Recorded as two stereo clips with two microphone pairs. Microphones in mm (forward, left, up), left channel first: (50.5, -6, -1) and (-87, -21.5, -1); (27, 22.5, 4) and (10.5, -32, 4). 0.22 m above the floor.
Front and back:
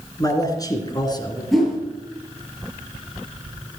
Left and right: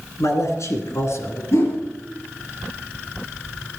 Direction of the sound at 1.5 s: 100° left.